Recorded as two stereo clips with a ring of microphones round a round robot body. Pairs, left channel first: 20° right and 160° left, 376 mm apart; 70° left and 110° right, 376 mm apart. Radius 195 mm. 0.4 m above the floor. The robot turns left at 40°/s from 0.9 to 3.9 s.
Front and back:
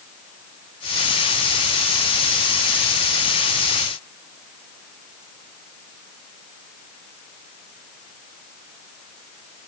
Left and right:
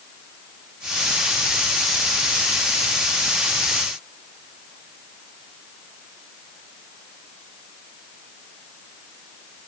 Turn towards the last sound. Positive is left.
No sound to turn to.